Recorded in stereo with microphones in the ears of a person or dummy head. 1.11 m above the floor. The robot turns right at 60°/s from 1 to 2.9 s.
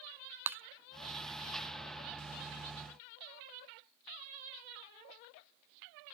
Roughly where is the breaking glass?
Centre.